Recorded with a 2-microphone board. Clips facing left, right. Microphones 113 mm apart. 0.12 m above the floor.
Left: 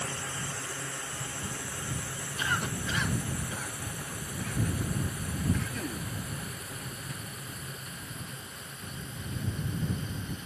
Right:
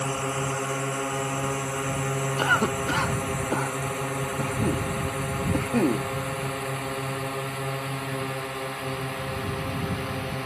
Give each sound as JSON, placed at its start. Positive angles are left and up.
{"t": 0.0, "sound": "a drone", "side_deg": -60}
{"t": 2.4, "sound": "a cough", "side_deg": -55}